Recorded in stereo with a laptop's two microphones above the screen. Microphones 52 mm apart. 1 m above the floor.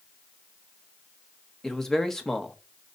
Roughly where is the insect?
I don't hear an insect.